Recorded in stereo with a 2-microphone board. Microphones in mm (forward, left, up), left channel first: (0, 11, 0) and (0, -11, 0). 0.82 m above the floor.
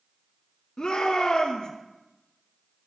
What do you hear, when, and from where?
0.8 s a shout: 35° left (ahead or behind), 1.7 m